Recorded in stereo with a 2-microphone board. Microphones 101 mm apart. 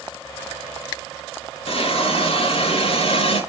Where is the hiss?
60° left (ahead or behind), 3.5 m.